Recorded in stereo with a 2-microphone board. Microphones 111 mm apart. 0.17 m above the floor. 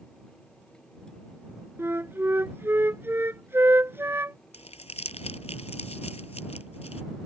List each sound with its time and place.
1.8 s a flute: 20° right (ahead or behind)
4.5 s crumpling: 75° left (ahead or behind)